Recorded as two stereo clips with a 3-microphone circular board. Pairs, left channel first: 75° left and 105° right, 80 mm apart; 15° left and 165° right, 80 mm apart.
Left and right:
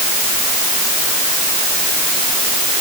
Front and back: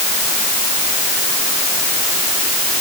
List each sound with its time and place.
Only background noise.